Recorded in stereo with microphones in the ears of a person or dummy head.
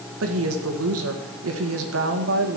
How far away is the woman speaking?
About 1.9 m.